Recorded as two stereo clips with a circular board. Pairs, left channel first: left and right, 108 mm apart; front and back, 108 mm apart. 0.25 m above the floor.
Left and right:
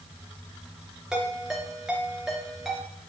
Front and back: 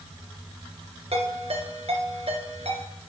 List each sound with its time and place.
1.1 s a ringtone: 175° right, 2.5 m